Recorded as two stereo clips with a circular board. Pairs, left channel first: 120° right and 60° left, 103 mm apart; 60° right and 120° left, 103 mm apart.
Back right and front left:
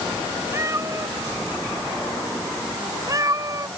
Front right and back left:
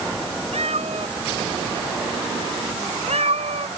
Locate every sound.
0.5 s a cat meowing: 125° left; by 3.7 s 115° left